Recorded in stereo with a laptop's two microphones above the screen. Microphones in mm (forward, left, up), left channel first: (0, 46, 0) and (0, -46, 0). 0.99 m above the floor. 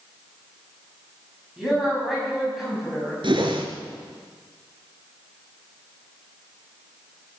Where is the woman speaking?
5° right (ahead or behind), 7.5 m.